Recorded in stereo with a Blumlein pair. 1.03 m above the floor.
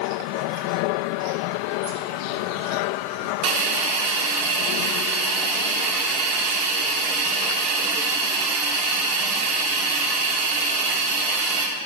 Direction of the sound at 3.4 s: 35° right.